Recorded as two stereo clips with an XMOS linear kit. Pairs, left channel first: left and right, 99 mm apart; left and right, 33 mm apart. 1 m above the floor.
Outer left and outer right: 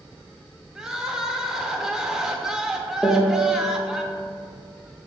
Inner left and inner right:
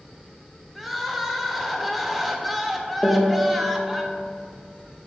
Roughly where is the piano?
Centre.